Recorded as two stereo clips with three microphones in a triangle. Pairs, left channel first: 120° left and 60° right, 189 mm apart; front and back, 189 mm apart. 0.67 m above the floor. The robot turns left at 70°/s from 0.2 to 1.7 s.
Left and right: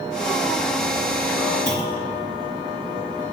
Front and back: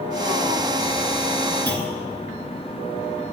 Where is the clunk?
80° right, 2.5 m; by 2.2 s 85° right, 2.5 m.